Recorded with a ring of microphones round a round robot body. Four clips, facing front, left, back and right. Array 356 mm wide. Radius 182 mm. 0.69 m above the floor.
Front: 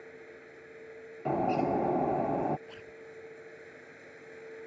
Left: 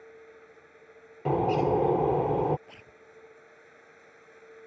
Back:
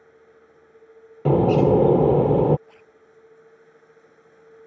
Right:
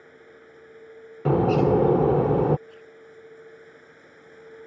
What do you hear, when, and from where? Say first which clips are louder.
0.0 s running water: right 1 dB, front 3 dB; 35° right
1.2 s a bird: right 5 dB, back 12 dB; 160° right
2.7 s a zipper: right 6 dB, front 4 dB; 60° left